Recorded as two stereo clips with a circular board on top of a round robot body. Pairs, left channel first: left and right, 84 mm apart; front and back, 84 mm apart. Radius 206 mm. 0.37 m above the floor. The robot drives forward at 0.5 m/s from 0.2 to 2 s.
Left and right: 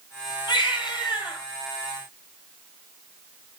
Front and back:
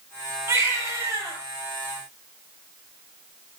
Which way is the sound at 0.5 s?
120° left.